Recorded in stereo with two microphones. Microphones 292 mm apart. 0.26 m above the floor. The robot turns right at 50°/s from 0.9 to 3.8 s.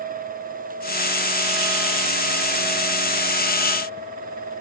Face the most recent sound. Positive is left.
No sound to turn to.